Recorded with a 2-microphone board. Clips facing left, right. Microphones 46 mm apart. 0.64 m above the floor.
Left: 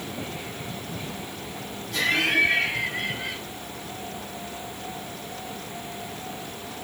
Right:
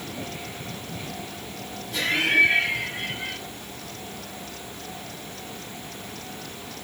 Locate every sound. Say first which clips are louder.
1.9 s laughter: right 1 dB; 5° right (ahead or behind), 4.5 m